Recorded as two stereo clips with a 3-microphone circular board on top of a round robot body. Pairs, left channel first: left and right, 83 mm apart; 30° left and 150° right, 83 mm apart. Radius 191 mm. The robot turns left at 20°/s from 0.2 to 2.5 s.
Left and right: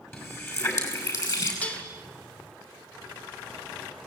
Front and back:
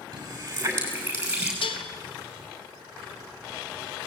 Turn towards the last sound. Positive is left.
turn(degrees=0)